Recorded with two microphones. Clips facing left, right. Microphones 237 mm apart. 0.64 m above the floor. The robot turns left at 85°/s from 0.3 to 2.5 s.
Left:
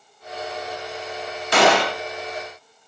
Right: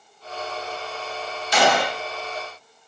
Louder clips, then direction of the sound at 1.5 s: Left 3 dB; 125° left.